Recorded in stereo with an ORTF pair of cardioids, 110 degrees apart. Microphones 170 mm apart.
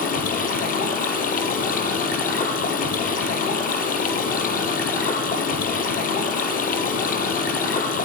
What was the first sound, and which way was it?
Running water, 55° left.